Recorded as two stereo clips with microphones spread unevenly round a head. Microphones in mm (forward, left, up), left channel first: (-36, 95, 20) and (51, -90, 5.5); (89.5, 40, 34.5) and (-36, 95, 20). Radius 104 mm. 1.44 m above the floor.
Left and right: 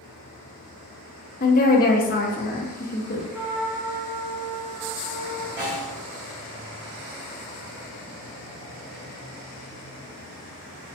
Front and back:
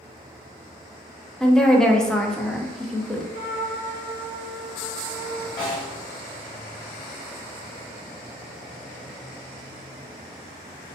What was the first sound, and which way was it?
A woman speaking, 65° left.